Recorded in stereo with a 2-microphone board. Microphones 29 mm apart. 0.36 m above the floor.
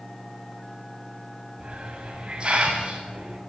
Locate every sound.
1.6 s a hiss: 30° right (ahead or behind), 2.5 m